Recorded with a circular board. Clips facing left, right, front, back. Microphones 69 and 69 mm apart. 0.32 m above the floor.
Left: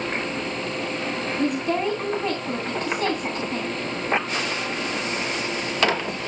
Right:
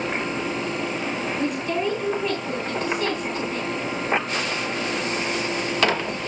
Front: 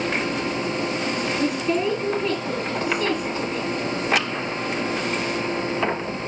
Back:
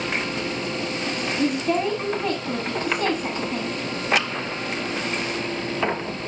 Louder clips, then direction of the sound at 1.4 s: Left 3 dB, back 2 dB; 150° left.